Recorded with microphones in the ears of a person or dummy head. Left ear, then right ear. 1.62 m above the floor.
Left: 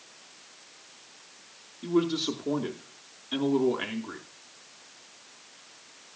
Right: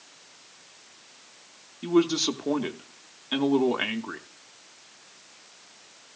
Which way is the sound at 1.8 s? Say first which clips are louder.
Right 4 dB; 25° right (ahead or behind).